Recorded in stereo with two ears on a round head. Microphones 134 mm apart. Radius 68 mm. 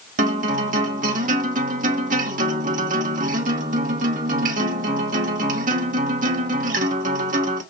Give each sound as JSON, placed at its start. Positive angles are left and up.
{"t": 0.2, "sound": "a guitar", "side_deg": -60, "distance_m": 1.9}